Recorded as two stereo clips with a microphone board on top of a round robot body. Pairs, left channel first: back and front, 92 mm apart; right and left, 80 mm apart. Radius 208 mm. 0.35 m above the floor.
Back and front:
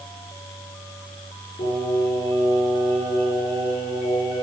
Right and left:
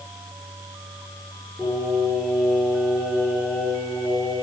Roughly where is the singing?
Behind.